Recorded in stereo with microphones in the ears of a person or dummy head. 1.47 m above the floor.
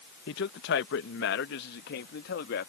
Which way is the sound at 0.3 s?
60° left (ahead or behind).